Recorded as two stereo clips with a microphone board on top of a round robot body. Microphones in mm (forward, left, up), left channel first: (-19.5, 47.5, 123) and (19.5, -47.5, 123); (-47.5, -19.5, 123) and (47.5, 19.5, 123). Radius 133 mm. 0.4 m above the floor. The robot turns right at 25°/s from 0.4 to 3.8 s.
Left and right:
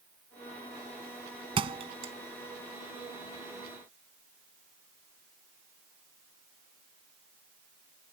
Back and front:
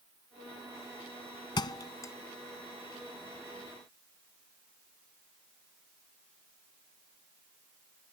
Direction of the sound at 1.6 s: 110° right.